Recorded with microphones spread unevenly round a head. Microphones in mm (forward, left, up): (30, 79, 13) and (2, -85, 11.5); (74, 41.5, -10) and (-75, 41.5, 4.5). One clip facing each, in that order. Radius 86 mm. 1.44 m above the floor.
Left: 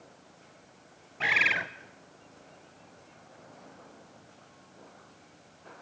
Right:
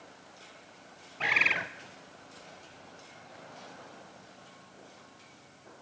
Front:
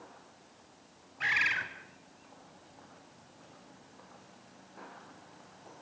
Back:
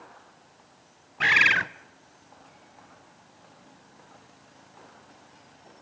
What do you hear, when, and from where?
1.2 s a bird: 165° left, 0.8 m